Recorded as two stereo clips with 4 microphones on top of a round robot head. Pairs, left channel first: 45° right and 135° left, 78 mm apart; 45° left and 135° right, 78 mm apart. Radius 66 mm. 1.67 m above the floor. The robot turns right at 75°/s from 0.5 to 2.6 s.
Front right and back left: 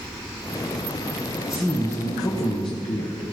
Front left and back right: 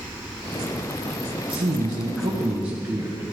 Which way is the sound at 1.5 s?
140° right.